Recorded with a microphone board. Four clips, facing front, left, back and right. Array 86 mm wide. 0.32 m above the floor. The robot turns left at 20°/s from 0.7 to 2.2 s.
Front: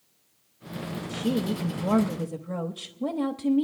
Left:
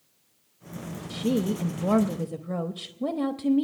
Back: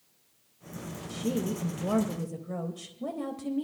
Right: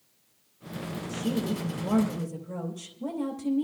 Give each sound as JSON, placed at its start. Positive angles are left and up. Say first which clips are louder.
{"t": 1.1, "sound": "a woman speaking", "louder": "left 4 dB, front 3 dB", "azimuth_deg": 90, "distance_m": 1.0}